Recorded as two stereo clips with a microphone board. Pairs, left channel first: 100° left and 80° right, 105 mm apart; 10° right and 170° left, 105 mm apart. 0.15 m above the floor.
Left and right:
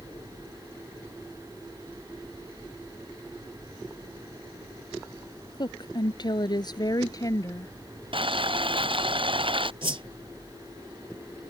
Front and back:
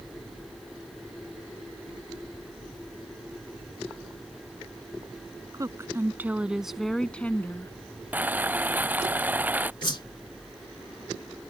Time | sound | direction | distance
5.5 | a woman speaking | 125° left | ?
8.1 | boiling | 115° right | ?
9.8 | a whoosh | 50° right | ?